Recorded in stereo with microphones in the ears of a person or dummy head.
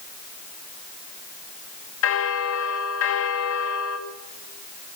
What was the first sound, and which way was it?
A bell, 70° left (ahead or behind).